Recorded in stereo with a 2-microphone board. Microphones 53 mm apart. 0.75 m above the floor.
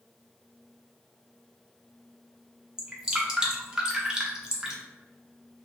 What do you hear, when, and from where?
2.8 s dripping: 15° right (ahead or behind), 0.7 m